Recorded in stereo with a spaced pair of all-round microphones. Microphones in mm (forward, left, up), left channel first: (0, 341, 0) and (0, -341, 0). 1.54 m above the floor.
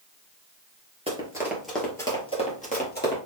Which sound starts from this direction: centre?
Running footsteps, at 1.1 s.